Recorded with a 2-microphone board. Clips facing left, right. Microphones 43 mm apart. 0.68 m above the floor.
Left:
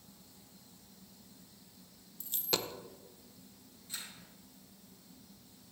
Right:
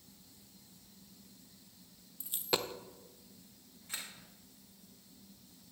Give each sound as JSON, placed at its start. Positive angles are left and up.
{"t": 2.2, "sound": "a dropped coin", "side_deg": -15, "distance_m": 0.5}
{"t": 3.9, "sound": "a camera shutter", "side_deg": -70, "distance_m": 2.5}